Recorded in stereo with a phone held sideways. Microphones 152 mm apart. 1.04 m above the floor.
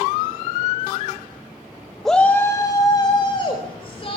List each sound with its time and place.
2.0 s a shout: centre (ahead or behind), 1.1 m; by 4.2 s 40° left (ahead or behind), 4 m